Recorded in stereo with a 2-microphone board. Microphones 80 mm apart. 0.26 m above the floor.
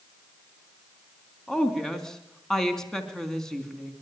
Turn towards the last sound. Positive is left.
turn(degrees=10)  # may be behind; listen again after turning